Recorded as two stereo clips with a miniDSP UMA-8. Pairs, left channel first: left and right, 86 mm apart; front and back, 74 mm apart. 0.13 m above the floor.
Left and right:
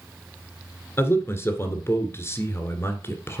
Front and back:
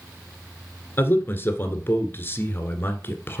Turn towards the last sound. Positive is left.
turn(degrees=45)